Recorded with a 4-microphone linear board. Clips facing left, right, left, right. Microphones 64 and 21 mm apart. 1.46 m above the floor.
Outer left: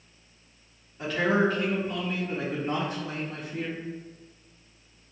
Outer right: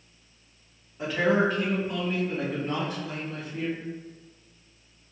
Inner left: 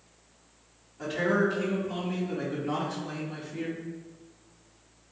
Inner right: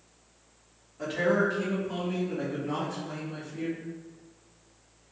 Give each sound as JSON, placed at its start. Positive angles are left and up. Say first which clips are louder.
{"t": 1.0, "sound": "a man speaking", "louder": "outer right 1 dB, even", "side_deg": -15, "distance_m": 2.0}